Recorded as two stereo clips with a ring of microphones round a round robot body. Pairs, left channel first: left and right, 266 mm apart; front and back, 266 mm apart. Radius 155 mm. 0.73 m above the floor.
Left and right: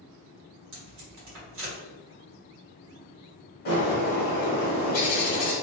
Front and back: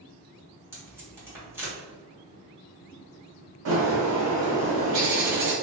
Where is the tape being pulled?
100° right, 1.5 m.